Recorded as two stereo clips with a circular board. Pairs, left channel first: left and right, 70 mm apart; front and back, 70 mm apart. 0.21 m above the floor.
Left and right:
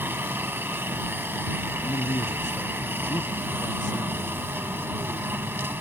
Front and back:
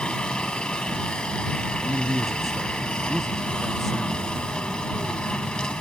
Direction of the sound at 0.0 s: 65° right.